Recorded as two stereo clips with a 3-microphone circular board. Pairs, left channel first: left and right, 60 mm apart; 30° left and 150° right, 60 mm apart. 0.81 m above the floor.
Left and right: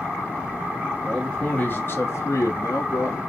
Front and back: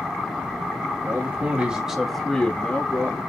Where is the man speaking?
165° left, 1.4 m; by 3.2 s 80° left, 1.5 m.